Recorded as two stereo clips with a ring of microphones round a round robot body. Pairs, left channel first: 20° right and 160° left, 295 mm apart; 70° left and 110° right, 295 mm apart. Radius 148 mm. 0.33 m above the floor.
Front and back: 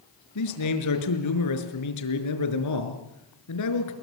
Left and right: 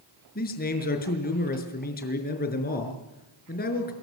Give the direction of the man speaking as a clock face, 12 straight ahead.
12 o'clock.